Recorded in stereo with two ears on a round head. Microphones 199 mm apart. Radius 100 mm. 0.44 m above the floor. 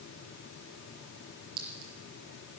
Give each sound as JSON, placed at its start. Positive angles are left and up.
{"t": 1.6, "sound": "a clink", "side_deg": -80, "distance_m": 5.5}